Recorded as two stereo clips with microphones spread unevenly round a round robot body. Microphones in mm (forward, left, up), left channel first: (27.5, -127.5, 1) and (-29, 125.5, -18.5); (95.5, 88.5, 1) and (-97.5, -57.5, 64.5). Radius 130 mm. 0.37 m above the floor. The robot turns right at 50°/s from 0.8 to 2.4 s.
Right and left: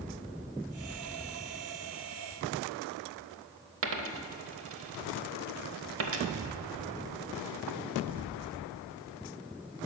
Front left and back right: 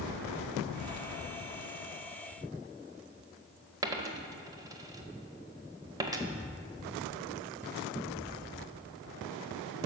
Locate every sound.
3.8 s a dropped coin: 135° left, 0.6 m